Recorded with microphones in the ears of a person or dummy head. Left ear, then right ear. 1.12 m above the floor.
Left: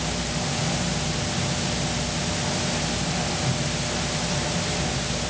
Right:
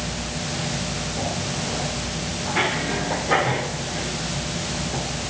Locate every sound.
Only background noise.